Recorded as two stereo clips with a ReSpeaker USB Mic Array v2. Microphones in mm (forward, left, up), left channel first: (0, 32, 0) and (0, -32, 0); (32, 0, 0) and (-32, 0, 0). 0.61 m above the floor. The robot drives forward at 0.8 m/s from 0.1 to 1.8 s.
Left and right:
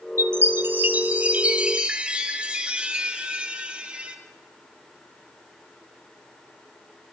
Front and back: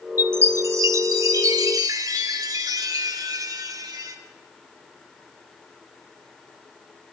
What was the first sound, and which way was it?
A chime, 130° right.